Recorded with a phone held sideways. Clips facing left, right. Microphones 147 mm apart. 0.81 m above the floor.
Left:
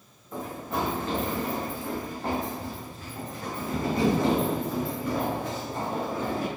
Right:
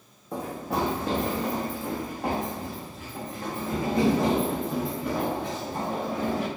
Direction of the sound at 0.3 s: 75° right (ahead or behind).